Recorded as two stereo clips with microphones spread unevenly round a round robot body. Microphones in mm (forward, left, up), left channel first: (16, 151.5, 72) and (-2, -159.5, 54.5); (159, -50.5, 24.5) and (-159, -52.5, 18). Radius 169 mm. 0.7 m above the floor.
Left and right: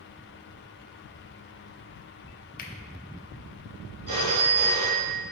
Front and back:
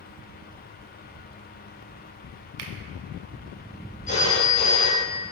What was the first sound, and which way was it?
A finger snap, 150° left.